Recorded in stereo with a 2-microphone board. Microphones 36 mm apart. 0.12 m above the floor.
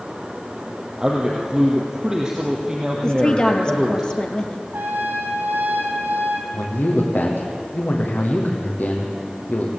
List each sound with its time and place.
1.0 s a man speaking: 20° right (ahead or behind), 3 m
3.0 s a woman speaking: 25° left (ahead or behind), 2.5 m
4.7 s a trumpet: 70° right (ahead or behind), 3.5 m
6.5 s a man speaking: 60° left (ahead or behind), 5 m